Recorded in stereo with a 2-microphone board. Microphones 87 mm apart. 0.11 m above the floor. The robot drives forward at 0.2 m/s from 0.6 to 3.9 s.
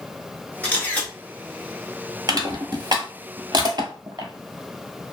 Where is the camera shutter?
15° left (ahead or behind), 1.4 m.